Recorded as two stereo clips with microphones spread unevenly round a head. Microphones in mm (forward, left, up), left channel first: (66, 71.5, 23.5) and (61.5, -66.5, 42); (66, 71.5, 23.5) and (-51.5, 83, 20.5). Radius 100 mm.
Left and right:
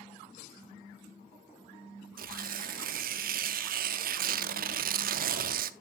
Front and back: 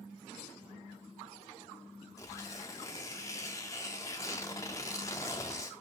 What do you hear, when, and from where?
2.2 s tearing paper: 80° right, 0.5 m